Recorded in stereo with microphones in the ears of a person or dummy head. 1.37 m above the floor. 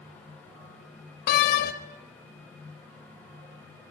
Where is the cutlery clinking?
No cutlery clinking in this recording.